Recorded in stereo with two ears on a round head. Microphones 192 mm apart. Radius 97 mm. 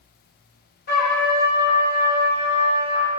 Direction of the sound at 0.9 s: 50° left (ahead or behind).